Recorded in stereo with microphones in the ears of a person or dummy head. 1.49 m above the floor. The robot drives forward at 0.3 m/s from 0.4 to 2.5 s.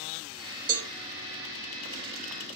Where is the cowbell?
40° right (ahead or behind), 0.8 m.